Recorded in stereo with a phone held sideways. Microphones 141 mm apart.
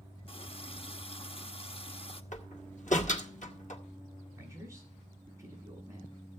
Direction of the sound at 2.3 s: 60° left (ahead or behind).